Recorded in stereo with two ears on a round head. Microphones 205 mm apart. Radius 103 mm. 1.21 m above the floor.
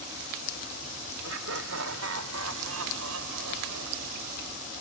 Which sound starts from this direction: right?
Laughter, at 1.2 s.